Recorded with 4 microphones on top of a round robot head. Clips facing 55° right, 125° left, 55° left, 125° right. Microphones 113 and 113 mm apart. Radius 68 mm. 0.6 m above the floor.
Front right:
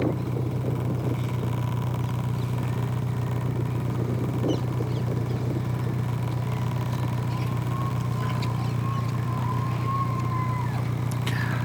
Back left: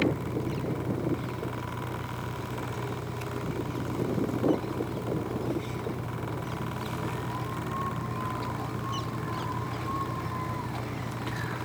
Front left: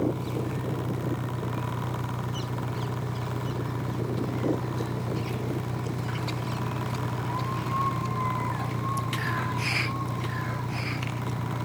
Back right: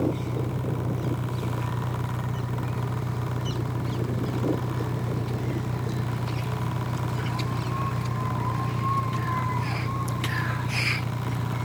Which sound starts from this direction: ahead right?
An engine running, at 0.0 s.